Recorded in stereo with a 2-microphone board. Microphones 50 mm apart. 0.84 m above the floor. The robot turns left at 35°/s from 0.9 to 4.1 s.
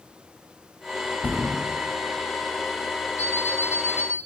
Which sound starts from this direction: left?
A thud, at 1.2 s.